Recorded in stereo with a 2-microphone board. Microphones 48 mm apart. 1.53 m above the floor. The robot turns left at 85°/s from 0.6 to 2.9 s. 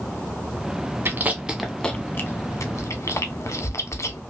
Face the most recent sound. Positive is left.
turn(degrees=75)  # may be behind; listen again after turning